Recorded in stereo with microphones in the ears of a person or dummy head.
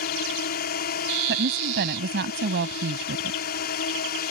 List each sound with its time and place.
0.0 s a drone: 50° left (ahead or behind)
1.3 s a woman speaking: 65° right (ahead or behind)